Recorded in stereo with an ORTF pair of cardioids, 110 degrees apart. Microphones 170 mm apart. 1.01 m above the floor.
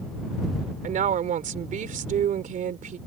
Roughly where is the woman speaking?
Ahead right.